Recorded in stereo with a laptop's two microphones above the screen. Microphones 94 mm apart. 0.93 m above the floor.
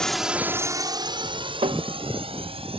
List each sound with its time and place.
0.0 s a drone: 5° left (ahead or behind); by 2.8 s 80° right
1.6 s tapping: 75° right (ahead or behind)